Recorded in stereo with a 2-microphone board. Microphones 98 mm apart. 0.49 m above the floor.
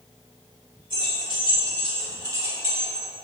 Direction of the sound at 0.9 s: 50° right (ahead or behind).